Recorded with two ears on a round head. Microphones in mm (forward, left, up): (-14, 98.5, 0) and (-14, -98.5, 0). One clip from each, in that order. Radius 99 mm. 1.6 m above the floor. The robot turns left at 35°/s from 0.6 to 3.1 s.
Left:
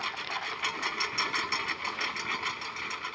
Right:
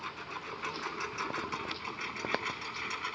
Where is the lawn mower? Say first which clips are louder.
Left 7 dB; 90° left; by 3.1 s 5° left.